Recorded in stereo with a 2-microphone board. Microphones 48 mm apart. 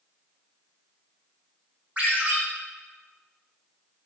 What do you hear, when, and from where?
2.0 s a ringtone: 30° right (ahead or behind), 1.0 m